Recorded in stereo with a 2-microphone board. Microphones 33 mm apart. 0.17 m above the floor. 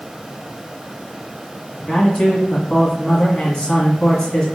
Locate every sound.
1.8 s a man speaking: 25° left (ahead or behind), 1.1 m